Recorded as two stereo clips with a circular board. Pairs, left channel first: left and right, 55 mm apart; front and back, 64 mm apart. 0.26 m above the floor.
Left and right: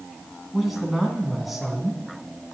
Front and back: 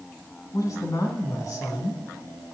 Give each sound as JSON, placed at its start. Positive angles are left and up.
{"t": 0.5, "sound": "a woman speaking", "azimuth_deg": -5, "distance_m": 2.0}